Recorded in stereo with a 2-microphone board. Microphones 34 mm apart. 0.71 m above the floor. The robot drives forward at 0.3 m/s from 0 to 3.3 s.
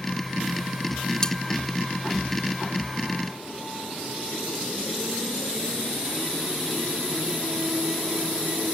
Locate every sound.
1.2 s cutlery clinking: 20° left (ahead or behind)